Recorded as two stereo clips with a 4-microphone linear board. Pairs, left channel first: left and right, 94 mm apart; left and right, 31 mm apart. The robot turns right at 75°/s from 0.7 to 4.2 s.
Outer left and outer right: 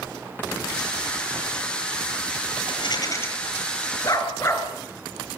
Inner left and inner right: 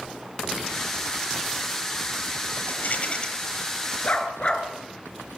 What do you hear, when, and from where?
2.7 s a rattle: 110° left, 9.5 m; by 3.3 s 155° left, 9.5 m
4.0 s a dog barking: 45° left (ahead or behind), 4.5 m; by 4.7 s 35° left (ahead or behind), 4.5 m